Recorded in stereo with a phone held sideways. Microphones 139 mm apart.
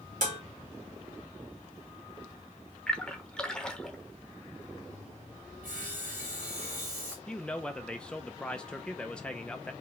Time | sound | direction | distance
0.2 | dishes clattering | 60° right (ahead or behind) | 2.0 m
2.9 | a splash | 5° left (ahead or behind) | 0.9 m
5.6 | sawing | 75° right (ahead or behind) | 2.5 m
7.3 | a man speaking | 5° left (ahead or behind) | 0.6 m